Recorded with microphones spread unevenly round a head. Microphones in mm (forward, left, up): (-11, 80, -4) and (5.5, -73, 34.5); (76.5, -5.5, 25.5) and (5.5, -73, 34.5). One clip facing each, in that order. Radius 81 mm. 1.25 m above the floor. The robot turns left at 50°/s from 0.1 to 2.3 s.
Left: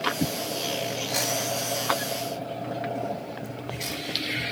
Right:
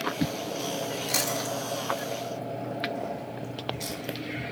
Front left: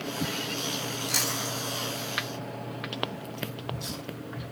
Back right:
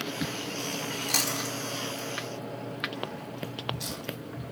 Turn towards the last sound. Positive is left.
turn(degrees=-170)